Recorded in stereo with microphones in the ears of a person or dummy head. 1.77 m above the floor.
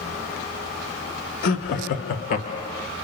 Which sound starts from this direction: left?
Laughter, at 1.4 s.